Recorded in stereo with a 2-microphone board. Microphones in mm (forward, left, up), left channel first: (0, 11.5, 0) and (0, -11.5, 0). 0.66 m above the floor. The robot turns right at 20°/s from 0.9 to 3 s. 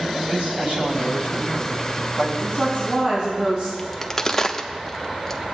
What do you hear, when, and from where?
0.3 s a man speaking: 65° right (ahead or behind), 3.5 m; by 2.3 s 40° right (ahead or behind), 3.5 m
2.4 s a woman speaking: 80° right, 4.5 m; by 3.7 s 75° right (ahead or behind), 4.5 m
3.8 s a crack: 15° left (ahead or behind), 0.7 m